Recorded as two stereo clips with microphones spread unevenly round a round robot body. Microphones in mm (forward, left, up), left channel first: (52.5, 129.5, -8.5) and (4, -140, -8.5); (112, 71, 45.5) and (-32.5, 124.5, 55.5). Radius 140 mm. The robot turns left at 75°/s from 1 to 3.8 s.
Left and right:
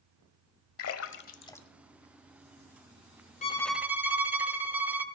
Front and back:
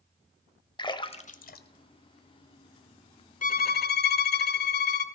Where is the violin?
15° left, 1.0 m; by 5.0 s 15° right, 1.0 m.